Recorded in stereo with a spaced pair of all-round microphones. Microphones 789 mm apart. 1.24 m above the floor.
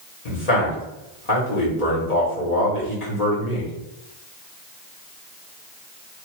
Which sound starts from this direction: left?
A man speaking, at 0.2 s.